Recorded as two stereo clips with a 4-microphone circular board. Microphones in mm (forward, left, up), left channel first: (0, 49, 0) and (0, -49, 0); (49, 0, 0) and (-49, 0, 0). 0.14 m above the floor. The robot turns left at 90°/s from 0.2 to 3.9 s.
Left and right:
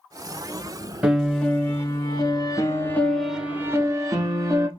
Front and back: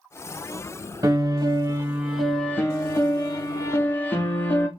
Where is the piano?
160° right, 0.9 m; by 4.7 s 60° right, 0.9 m.